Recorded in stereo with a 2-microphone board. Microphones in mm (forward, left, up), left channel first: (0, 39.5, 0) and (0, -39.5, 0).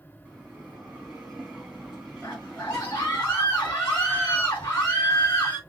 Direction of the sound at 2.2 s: 25° left (ahead or behind).